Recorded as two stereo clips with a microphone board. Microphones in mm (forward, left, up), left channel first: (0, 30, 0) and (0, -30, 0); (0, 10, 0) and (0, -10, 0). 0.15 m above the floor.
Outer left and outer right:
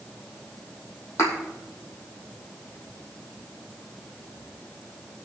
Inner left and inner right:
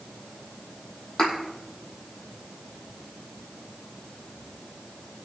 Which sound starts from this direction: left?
A thud, at 1.2 s.